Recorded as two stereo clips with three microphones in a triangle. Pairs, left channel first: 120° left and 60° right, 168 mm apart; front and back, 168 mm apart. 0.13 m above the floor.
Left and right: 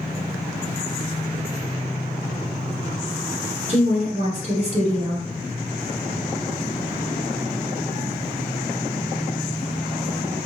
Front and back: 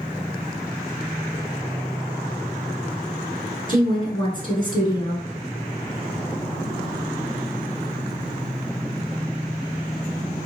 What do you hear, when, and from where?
3.7 s a woman speaking: 45° right, 1.3 m